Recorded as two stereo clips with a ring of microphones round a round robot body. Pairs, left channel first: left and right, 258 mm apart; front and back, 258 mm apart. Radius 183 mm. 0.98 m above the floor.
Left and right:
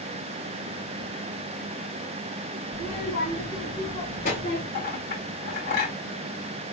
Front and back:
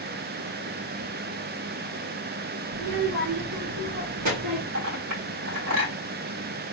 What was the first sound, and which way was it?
A child speaking, 160° left.